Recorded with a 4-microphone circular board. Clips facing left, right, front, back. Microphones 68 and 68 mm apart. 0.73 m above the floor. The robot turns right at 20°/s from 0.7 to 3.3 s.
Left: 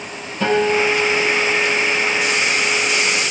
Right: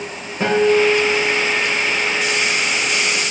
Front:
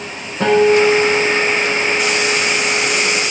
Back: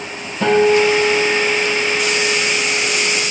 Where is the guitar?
30° right, 3 m; by 2.4 s straight ahead, 3 m.